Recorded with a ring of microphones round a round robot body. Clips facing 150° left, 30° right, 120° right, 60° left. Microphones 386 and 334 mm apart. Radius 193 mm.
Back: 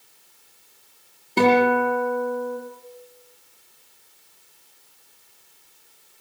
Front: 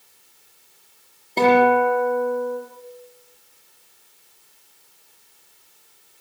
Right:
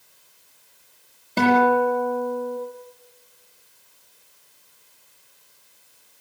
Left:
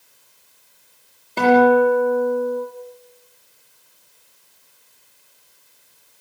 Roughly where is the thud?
No thud in this recording.